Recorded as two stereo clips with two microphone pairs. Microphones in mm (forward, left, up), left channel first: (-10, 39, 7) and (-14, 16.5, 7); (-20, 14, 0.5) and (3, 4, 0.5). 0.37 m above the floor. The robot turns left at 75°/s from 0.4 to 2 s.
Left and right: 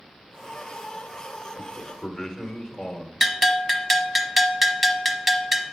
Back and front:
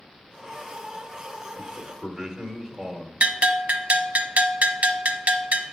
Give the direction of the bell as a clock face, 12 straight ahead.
12 o'clock.